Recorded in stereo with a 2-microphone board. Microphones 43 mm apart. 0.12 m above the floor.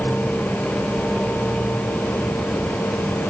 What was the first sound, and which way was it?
Only background noise.